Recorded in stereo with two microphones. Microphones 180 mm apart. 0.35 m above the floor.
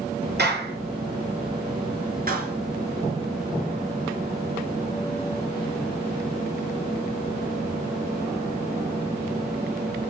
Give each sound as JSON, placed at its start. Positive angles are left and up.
{"t": 0.4, "sound": "a clap", "side_deg": -75, "distance_m": 5.5}
{"t": 2.3, "sound": "a clap", "side_deg": -60, "distance_m": 4.0}